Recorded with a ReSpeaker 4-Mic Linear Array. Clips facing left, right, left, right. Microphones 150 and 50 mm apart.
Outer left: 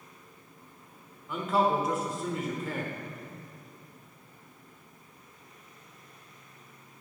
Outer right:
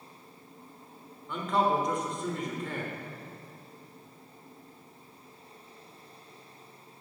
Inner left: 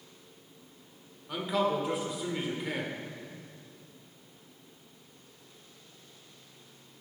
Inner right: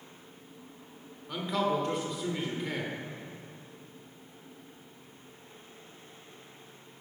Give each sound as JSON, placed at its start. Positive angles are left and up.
{"t": 1.3, "sound": "a man speaking", "side_deg": 5, "distance_m": 1.3}